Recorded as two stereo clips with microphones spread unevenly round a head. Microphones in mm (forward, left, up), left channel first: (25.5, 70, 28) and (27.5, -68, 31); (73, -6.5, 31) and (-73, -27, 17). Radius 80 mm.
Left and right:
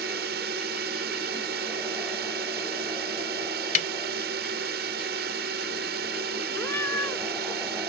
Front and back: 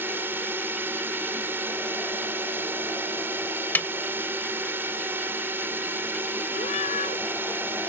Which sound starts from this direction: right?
A drone, at 0.0 s.